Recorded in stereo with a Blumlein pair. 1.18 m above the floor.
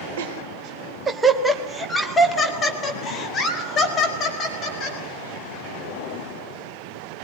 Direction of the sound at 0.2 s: 55° right.